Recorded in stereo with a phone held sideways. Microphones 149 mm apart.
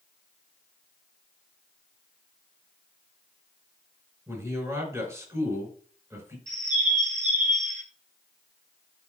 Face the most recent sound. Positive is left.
turn(degrees=-55)  # may be behind; listen again after turning